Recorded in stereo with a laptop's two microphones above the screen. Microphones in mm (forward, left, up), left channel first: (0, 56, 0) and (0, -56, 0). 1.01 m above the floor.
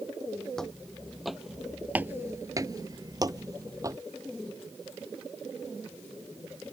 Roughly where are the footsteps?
Centre.